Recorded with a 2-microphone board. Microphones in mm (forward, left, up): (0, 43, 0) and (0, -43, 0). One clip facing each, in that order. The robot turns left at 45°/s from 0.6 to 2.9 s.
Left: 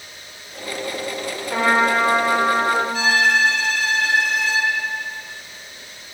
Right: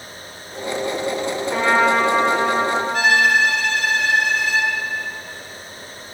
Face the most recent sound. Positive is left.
turn(degrees=-55)  # may be behind; listen again after turning